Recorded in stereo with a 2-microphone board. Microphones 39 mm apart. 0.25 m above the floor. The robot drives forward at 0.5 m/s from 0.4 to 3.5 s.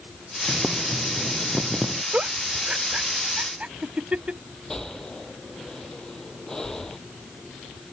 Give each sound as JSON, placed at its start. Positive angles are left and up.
{"t": 0.5, "sound": "boiling", "side_deg": -20}
{"t": 2.1, "sound": "a giggle", "side_deg": -35}
{"t": 4.7, "sound": "breathing", "side_deg": 15}